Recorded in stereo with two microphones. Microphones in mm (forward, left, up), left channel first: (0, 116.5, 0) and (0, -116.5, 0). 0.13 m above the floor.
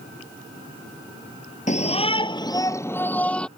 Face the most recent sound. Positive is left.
turn(degrees=5)  # may be behind; listen again after turning